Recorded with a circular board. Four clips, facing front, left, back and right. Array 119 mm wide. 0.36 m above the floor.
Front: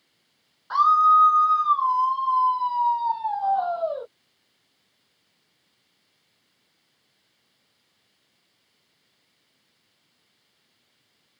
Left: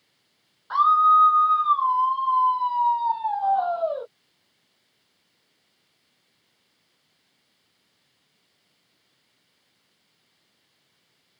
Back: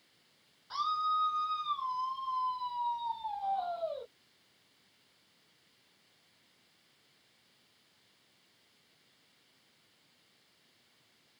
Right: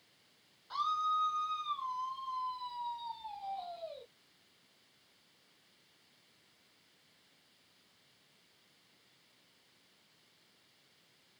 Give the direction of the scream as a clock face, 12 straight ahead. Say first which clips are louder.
Left 17 dB, front 16 dB; 11 o'clock.